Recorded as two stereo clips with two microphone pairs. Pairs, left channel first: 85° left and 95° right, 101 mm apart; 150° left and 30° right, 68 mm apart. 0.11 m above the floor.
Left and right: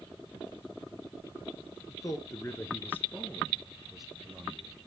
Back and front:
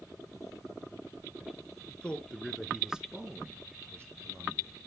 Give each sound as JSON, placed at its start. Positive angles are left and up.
{"t": 1.9, "sound": "a man speaking", "azimuth_deg": 95, "distance_m": 1.3}